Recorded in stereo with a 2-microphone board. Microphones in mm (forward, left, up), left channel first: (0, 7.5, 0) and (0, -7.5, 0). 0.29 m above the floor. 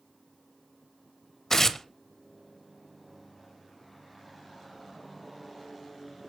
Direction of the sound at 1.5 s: 35° left (ahead or behind).